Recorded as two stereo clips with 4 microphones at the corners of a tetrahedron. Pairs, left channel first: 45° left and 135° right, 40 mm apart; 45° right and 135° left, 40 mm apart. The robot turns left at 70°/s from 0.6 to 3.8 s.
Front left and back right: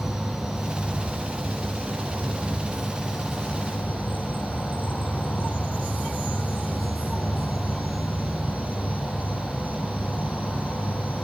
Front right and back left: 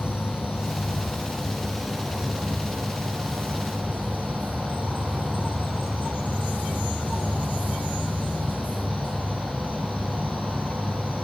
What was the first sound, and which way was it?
An insect, 50° right.